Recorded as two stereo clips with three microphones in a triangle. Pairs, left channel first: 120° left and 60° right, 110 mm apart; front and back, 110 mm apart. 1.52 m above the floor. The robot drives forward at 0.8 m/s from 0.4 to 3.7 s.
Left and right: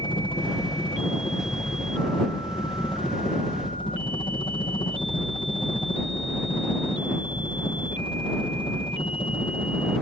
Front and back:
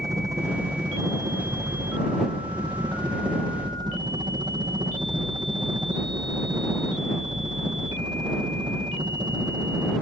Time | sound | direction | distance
0.0 | a helicopter | 130° left | ?